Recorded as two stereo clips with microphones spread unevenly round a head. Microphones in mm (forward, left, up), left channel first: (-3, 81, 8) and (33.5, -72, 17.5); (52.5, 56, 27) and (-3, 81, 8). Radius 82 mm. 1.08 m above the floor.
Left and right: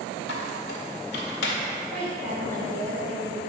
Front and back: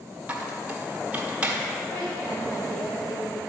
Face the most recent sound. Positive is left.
turn(degrees=-45)